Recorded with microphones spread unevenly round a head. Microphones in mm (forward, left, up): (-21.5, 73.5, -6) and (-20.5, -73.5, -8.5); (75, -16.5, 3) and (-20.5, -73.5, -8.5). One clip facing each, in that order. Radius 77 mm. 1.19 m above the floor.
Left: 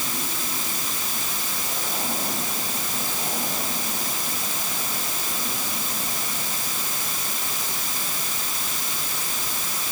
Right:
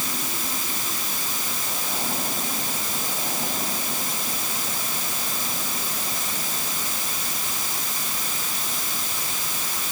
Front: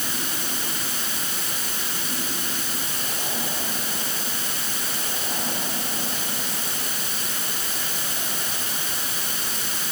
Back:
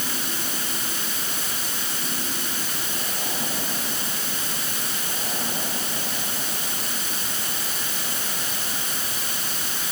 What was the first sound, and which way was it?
Only background noise.